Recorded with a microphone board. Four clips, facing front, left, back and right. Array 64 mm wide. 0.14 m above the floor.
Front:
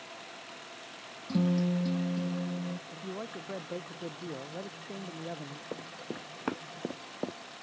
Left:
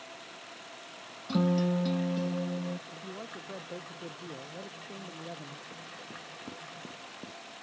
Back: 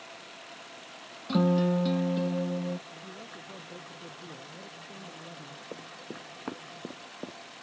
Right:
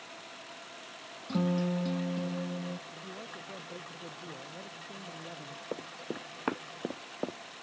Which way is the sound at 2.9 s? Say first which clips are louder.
Left 2 dB, front 5 dB; 15° left.